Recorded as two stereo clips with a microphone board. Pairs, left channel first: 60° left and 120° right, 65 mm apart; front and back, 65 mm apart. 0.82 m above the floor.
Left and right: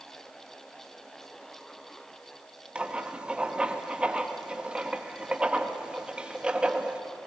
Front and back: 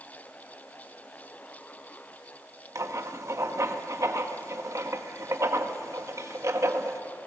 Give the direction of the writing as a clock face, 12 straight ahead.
6 o'clock.